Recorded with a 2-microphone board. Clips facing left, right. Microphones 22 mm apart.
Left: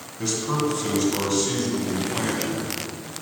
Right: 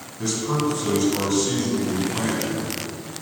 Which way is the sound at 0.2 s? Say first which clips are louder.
Right 1 dB; 5° left (ahead or behind).